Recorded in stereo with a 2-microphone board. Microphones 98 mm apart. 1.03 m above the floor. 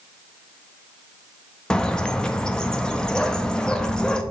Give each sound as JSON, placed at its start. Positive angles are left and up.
{"t": 1.7, "sound": "a bird", "side_deg": 5, "distance_m": 0.5}